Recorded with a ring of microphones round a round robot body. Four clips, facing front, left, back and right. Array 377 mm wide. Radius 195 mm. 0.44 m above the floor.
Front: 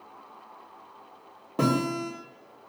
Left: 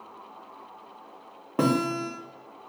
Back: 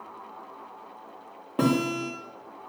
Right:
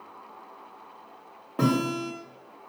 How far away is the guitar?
About 1.3 m.